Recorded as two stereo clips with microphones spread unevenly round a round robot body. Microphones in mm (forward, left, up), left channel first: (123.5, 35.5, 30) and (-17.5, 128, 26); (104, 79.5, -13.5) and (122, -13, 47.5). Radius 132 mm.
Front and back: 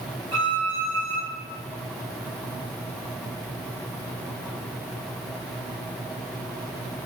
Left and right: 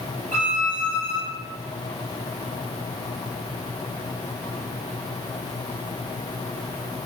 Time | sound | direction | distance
0.3 | a violin | 140° right | 1.4 m